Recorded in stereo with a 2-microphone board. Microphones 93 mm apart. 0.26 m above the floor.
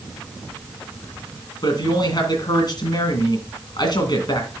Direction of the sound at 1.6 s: 50° left (ahead or behind).